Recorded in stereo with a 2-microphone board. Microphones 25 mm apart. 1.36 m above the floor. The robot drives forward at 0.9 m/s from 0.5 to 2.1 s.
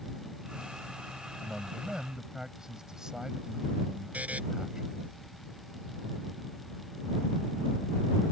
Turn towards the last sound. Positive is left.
turn(degrees=-85)